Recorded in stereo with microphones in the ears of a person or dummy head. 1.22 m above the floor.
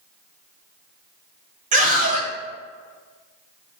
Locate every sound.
1.7 s a scream: 40° right (ahead or behind), 0.9 m